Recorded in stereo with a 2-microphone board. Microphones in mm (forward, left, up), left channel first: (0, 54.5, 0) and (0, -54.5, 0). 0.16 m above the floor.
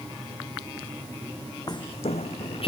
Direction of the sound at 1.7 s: 40° left (ahead or behind).